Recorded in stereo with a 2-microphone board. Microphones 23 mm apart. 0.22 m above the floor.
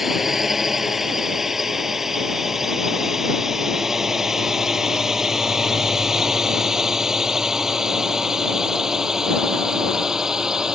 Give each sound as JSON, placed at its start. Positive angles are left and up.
{"t": 0.0, "sound": "a drone", "side_deg": -15}